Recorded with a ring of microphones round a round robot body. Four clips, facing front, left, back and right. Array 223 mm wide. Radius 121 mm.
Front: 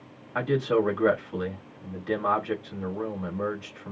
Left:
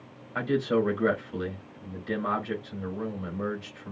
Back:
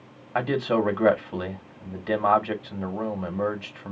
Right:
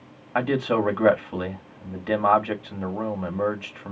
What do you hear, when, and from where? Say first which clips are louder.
0.3 s a man speaking: right 3 dB, even; 120° right, 3 m